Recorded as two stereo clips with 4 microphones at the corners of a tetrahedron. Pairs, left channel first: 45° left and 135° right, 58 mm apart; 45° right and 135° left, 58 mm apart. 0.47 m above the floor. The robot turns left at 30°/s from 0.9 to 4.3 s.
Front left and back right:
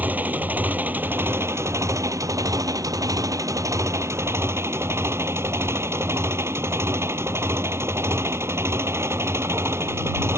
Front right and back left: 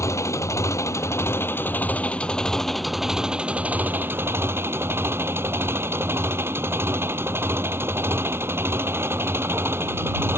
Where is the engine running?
75° right; by 10.4 s straight behind.